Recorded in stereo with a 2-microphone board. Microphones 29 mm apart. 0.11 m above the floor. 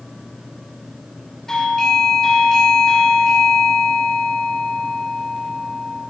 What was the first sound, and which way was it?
A doorbell, 15° left (ahead or behind).